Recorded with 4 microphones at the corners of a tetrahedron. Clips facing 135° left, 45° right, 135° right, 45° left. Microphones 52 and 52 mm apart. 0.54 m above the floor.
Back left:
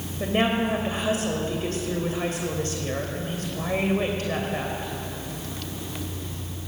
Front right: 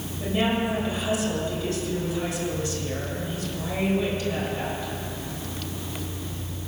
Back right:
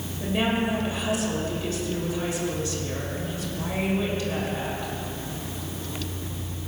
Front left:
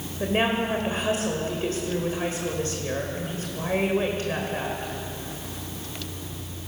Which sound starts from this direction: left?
A woman speaking, at 0.2 s.